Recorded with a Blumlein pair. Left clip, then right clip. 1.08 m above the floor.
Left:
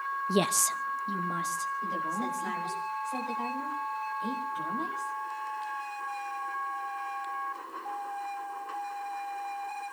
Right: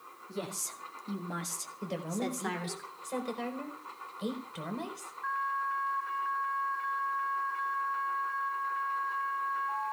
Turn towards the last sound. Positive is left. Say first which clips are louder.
# left 5 dB
turn(degrees=-60)